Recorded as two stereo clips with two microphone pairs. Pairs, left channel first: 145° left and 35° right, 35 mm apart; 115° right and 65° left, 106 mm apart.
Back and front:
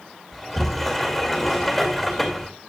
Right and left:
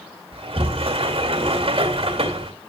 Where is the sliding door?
55° left, 2 m.